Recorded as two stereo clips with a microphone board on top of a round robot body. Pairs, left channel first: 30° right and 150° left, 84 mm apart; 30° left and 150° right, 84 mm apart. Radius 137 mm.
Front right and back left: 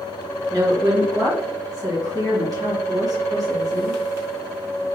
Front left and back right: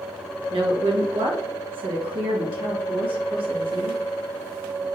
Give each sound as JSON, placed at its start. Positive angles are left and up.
{"t": 0.5, "sound": "a woman speaking", "azimuth_deg": -165, "distance_m": 1.6}